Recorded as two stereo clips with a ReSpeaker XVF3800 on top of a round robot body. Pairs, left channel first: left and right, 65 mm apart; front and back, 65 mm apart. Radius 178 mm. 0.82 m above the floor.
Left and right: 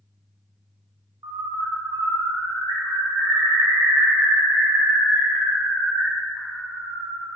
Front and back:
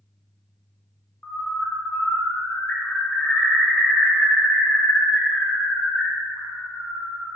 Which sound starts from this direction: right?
A bird, at 1.2 s.